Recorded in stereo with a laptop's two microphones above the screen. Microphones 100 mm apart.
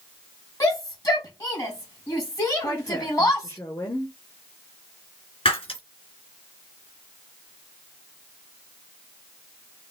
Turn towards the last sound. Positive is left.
turn(degrees=65)  # may be behind; listen again after turning